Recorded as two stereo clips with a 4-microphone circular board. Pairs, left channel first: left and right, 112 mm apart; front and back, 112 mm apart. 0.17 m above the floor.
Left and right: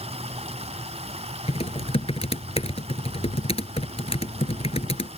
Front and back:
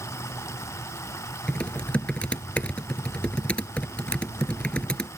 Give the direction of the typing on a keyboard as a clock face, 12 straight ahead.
9 o'clock.